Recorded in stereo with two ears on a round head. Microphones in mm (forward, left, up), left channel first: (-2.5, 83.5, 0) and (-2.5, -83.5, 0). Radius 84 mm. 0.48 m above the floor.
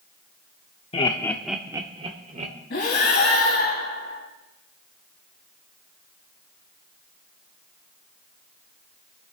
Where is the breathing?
55° left (ahead or behind), 3 m.